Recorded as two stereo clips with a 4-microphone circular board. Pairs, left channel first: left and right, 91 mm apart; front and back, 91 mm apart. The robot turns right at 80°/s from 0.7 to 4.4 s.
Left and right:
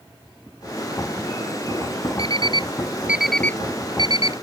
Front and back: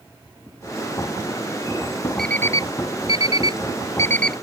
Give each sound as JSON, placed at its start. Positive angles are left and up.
{"t": 2.2, "sound": "an alarm clock", "azimuth_deg": -85}